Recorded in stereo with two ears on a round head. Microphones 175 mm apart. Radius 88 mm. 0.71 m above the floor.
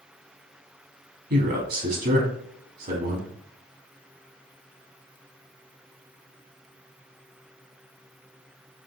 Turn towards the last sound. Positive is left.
turn(degrees=-55)  # may be behind; listen again after turning